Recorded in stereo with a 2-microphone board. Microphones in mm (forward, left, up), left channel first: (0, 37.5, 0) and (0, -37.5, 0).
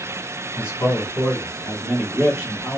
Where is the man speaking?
30° left (ahead or behind), 1.6 m; by 2.8 s 15° right (ahead or behind), 1.5 m.